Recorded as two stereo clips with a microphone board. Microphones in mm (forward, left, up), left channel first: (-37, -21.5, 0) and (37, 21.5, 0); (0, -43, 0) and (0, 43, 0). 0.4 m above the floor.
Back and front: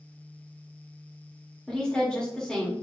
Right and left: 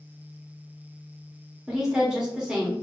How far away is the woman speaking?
About 1.1 m.